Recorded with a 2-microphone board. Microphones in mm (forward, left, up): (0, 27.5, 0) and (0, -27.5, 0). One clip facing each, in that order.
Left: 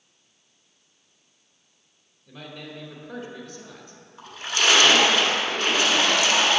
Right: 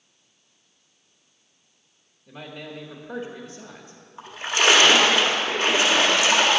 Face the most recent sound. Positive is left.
turn(degrees=-20)  # may be behind; listen again after turning